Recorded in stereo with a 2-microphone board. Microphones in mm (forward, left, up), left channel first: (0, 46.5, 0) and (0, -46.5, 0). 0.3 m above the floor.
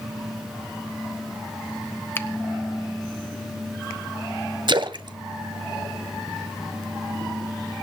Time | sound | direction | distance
2.1 | a finger snap | 25° left (ahead or behind) | 0.8 m
4.7 | a splash | 55° right (ahead or behind) | 0.7 m